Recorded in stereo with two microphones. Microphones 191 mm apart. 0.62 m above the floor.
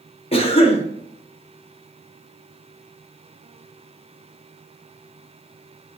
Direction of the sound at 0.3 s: 30° left (ahead or behind).